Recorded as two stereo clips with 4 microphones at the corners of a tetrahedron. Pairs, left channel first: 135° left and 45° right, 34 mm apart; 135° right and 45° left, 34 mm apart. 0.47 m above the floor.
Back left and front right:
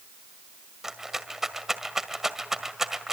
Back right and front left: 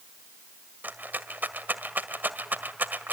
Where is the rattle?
35° left, 1.9 m.